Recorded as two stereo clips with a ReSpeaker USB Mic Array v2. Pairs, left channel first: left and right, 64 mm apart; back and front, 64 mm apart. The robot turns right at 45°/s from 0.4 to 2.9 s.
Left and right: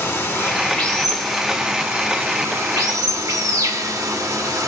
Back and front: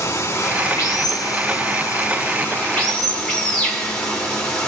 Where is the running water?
145° left, 2 m; by 4.7 s 105° right, 2 m.